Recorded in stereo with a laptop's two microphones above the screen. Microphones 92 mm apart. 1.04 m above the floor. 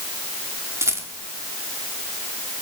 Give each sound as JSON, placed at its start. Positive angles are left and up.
{"t": 0.8, "sound": "a rattle", "side_deg": -30, "distance_m": 2.0}